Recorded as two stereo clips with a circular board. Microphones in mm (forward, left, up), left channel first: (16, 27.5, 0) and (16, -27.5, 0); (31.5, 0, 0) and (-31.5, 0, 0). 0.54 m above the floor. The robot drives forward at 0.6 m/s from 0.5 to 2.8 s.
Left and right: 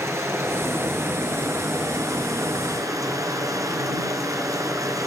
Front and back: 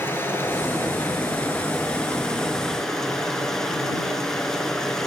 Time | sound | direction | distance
0.0 | running water | 55° right | 3 m